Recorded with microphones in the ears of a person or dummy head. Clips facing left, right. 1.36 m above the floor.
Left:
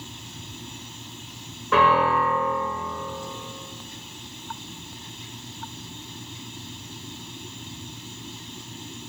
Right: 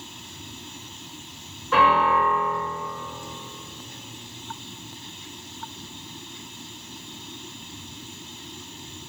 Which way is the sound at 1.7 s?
60° left (ahead or behind).